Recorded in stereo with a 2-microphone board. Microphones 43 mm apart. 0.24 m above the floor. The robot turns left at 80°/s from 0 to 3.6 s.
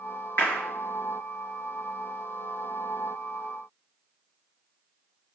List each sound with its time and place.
0.4 s a clap: 60° left (ahead or behind), 3.5 m; by 0.6 s 70° left (ahead or behind), 3.5 m